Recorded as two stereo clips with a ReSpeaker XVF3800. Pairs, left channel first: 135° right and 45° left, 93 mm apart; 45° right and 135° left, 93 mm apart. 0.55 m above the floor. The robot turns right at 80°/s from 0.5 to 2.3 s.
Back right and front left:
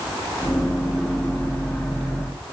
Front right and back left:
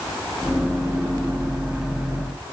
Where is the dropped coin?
I don't hear a dropped coin.